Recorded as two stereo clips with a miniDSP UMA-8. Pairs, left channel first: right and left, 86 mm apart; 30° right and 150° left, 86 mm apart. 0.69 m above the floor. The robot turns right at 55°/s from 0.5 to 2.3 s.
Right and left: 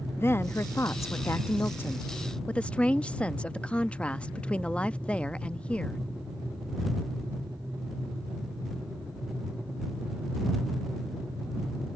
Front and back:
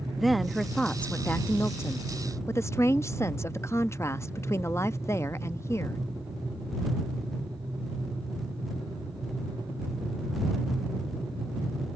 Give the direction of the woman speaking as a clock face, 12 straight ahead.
4 o'clock.